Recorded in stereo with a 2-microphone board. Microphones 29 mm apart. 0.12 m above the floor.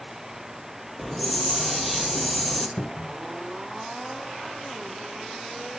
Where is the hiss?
Centre (ahead or behind), 1.4 m.